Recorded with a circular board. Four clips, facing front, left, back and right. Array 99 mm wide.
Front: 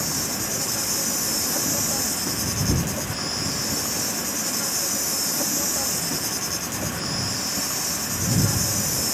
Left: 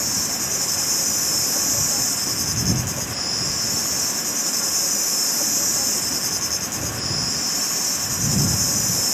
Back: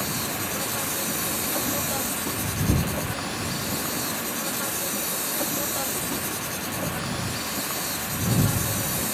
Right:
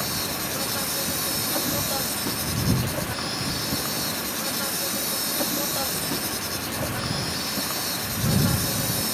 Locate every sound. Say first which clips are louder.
0.0 s an insect: right 1 dB, even; 110° right